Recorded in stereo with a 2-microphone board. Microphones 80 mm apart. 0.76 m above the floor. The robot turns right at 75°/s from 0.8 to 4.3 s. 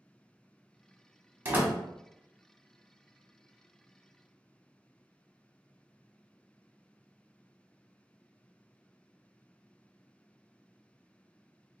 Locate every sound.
1.4 s a door slam: 30° right (ahead or behind), 0.9 m; by 1.8 s 10° right (ahead or behind), 0.9 m